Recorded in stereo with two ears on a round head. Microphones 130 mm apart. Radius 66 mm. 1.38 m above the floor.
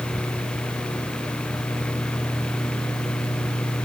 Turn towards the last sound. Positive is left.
No sound to turn to.